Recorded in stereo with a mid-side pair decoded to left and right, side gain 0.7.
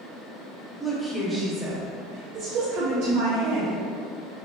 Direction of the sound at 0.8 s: 10° left.